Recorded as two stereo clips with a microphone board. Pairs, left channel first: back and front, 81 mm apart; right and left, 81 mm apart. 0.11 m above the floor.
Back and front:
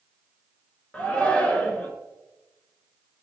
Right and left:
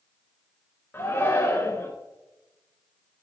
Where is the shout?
125° right, 1.3 m.